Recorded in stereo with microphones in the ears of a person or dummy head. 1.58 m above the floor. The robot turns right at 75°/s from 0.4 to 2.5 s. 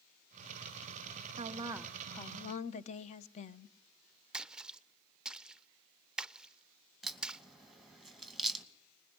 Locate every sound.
1.4 s a woman speaking: 45° right, 1.2 m; by 3.7 s 40° left, 1.2 m
4.3 s a splash: 10° right (ahead or behind), 0.7 m
7.0 s a crack: 5° right (ahead or behind), 2.5 m